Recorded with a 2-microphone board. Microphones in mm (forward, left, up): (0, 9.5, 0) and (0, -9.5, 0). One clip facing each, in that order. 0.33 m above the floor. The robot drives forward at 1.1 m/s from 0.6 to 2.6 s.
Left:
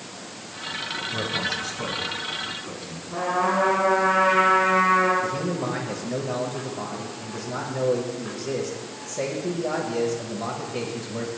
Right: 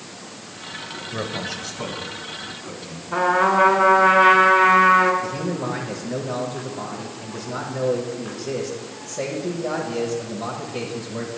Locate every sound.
1.1 s a man speaking: 25° right (ahead or behind), 1.1 m; by 3.0 s 10° right (ahead or behind), 2.5 m
3.1 s a trumpet: 65° right (ahead or behind), 2.5 m
5.2 s a man speaking: centre (ahead or behind), 1.1 m